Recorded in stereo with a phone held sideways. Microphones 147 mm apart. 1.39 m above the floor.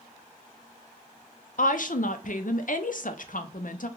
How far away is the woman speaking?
About 0.5 m.